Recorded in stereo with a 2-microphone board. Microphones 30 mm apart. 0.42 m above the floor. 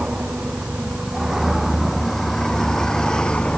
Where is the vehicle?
35° right (ahead or behind); by 3.6 s 30° left (ahead or behind).